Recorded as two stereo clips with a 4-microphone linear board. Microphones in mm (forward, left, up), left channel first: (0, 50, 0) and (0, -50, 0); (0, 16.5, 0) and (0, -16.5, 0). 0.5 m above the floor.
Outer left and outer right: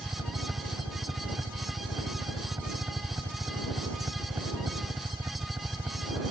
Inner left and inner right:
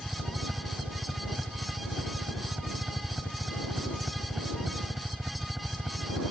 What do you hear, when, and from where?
0.0 s a helicopter: 30° right (ahead or behind)